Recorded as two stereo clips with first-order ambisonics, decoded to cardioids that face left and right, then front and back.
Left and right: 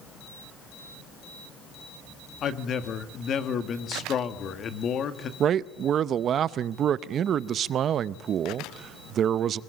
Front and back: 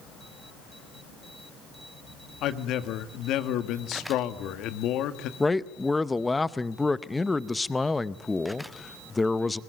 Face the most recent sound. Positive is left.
turn(degrees=-75)